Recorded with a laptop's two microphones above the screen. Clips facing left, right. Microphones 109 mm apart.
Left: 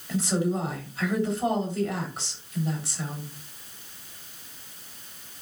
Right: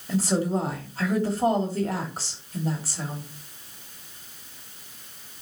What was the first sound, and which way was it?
A woman speaking, 40° right (ahead or behind).